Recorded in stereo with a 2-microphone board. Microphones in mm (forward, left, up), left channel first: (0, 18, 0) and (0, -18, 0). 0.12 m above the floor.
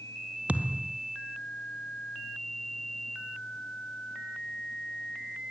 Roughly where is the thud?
Right.